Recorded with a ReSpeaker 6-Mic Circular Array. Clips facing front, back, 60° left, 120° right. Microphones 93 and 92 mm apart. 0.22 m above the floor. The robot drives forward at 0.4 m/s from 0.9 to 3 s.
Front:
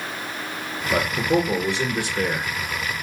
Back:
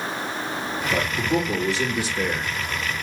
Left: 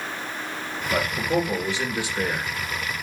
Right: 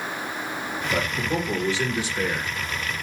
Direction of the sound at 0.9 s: 10° right.